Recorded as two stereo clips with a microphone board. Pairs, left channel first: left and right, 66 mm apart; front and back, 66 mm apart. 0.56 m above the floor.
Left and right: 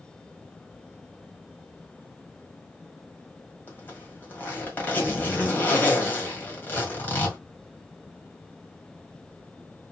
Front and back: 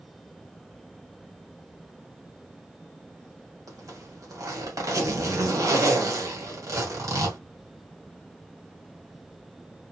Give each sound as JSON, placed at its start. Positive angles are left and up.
{"t": 3.7, "sound": "a zipper", "azimuth_deg": 150, "distance_m": 1.7}